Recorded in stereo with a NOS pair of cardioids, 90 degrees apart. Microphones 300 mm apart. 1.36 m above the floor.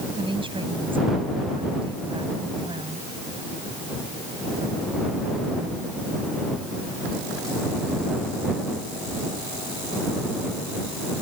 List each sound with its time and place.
0.2 s a woman speaking: 15° right